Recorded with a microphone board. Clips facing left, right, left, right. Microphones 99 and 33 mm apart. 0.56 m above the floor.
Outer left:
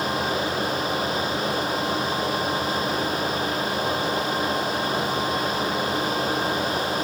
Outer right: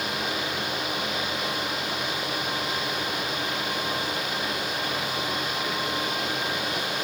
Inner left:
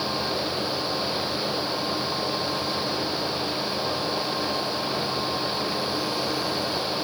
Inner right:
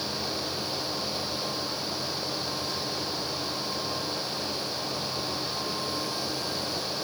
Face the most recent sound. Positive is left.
No sound to turn to.